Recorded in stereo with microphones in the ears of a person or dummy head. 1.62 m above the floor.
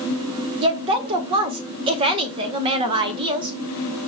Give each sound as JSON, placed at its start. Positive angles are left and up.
{"t": 0.6, "sound": "a woman speaking", "side_deg": -25, "distance_m": 0.7}